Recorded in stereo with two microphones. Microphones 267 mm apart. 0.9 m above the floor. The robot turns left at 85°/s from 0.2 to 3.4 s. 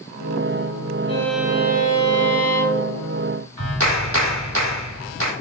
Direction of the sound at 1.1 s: 20° left.